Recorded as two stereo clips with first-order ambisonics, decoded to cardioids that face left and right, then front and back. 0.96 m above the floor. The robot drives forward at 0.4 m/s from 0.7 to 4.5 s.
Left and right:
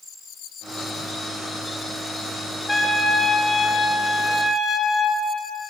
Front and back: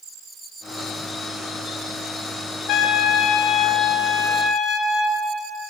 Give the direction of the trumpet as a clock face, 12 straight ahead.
12 o'clock.